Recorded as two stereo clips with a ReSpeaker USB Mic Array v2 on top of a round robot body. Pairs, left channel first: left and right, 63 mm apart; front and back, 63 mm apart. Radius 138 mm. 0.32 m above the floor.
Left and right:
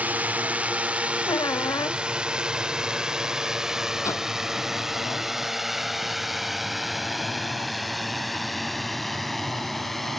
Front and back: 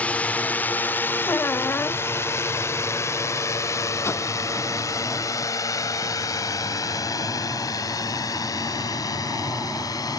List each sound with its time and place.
0.0 s a drone: 45° right; by 10.2 s 5° left
1.3 s a squeak: 60° left
4.0 s a whoosh: 50° left